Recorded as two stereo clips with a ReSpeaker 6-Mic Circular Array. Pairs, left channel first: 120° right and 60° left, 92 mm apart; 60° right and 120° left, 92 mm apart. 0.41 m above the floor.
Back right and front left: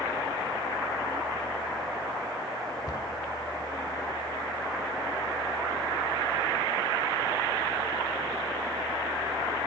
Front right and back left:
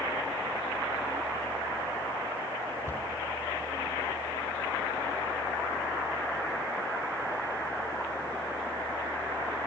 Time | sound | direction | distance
2.9 | a cupboard door | 105° right | 1.9 m